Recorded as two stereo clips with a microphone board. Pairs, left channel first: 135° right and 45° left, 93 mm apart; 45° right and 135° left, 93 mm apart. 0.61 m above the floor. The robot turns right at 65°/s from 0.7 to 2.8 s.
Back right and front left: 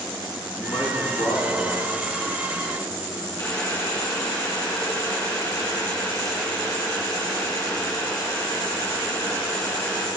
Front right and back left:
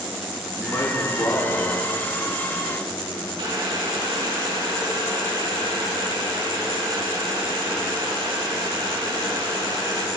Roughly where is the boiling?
Behind.